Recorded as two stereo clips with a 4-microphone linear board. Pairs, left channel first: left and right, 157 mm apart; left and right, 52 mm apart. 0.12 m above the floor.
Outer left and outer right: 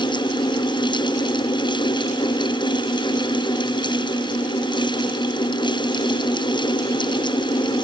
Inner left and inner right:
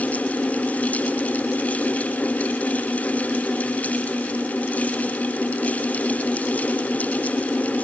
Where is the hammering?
No hammering in this recording.